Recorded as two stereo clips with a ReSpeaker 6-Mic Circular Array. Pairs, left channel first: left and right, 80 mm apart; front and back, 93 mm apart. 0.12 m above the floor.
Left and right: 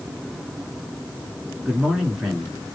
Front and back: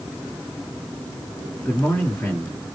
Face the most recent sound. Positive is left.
turn(degrees=-10)